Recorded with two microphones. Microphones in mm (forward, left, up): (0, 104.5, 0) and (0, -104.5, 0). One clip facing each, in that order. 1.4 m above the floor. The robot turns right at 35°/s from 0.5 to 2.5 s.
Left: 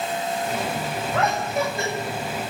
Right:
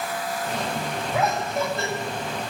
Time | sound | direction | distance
1.1 | laughter | 10° right (ahead or behind) | 9.5 m